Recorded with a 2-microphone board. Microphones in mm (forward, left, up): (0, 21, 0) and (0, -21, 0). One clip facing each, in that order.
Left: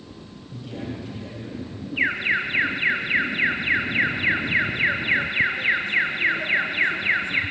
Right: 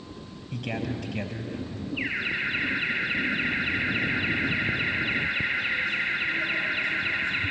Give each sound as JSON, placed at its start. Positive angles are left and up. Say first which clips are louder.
{"t": 0.5, "sound": "a man speaking", "louder": "right 2 dB", "side_deg": -70, "distance_m": 4.0}
{"t": 2.0, "sound": "an alarm", "louder": "left 7 dB", "side_deg": 55, "distance_m": 3.5}